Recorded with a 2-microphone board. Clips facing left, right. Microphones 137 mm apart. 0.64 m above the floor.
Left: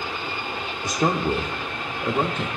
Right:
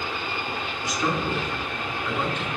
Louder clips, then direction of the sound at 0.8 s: Left 4 dB; 50° left (ahead or behind).